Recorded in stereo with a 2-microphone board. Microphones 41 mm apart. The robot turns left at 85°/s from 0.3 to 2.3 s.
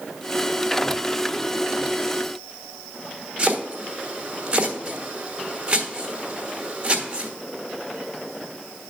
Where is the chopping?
25° right (ahead or behind), 1.3 m.